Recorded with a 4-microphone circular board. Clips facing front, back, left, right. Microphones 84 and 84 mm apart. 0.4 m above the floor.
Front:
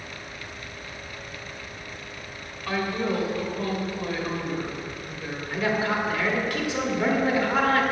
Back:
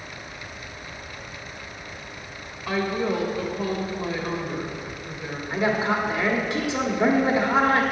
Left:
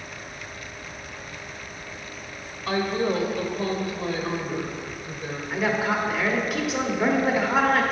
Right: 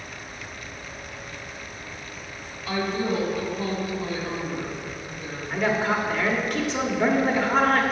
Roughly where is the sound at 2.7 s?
Left.